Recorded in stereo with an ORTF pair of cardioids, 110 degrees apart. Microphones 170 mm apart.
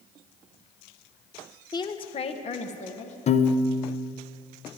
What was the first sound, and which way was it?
A woman speaking, 25° left.